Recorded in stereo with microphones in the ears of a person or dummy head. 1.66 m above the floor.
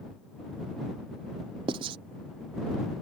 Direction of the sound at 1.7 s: 25° right (ahead or behind).